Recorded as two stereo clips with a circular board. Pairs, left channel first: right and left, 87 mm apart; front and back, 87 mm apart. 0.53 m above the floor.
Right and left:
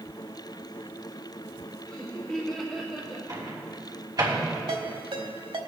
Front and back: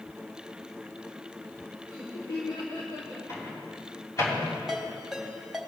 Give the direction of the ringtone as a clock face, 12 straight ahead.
9 o'clock.